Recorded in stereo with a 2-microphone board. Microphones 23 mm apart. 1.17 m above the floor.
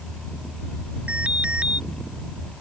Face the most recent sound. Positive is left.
turn(degrees=-65)  # may be behind; listen again after turning